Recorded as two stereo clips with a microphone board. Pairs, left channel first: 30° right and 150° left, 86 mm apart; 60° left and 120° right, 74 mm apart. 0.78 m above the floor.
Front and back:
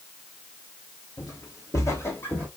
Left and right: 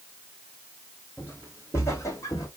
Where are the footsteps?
Straight ahead, 1.4 m; by 2.5 s 35° left, 1.3 m.